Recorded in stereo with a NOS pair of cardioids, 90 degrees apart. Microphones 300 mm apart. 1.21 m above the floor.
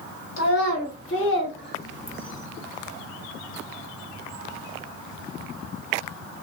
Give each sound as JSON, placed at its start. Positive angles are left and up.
{"t": 0.4, "sound": "a child speaking", "azimuth_deg": 55, "distance_m": 1.6}